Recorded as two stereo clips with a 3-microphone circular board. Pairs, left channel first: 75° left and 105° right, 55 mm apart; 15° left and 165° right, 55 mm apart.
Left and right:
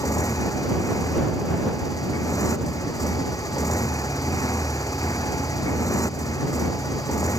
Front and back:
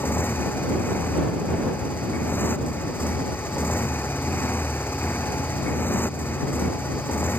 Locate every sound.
0.0 s a motorcycle: 65° left